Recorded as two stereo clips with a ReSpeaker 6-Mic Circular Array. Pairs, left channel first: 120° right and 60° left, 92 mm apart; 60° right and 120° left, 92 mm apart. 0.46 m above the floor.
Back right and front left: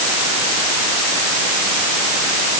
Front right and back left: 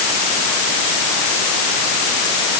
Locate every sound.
Only background noise.